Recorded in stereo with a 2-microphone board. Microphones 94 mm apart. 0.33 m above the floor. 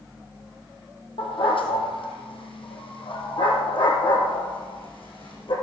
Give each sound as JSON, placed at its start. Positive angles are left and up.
{"t": 1.2, "sound": "a dog barking", "side_deg": 85, "distance_m": 3.5}